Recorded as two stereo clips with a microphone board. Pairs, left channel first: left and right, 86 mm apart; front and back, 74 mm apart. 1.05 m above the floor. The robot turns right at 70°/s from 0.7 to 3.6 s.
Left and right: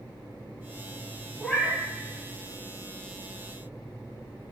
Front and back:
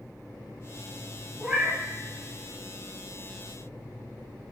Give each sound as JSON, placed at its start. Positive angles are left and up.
{"t": 1.4, "sound": "a cat meowing", "azimuth_deg": 135, "distance_m": 0.9}